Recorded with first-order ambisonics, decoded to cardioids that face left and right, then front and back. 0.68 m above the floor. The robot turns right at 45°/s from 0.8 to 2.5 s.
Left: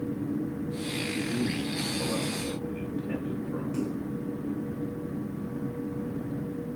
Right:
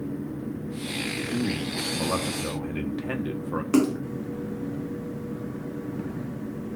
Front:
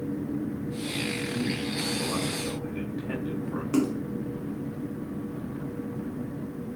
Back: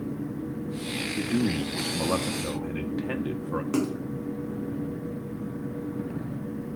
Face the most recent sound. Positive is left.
turn(degrees=-95)